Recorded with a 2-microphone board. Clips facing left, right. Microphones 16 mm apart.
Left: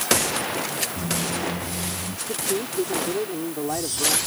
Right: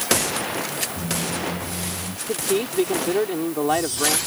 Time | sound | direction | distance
1.0 | a squeak | 45° left (ahead or behind) | ?
2.3 | a man speaking | 75° right (ahead or behind) | ?